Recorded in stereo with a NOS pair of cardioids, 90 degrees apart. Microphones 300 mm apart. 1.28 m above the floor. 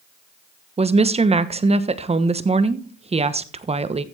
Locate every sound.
0.8 s a woman speaking: 20° right, 1.2 m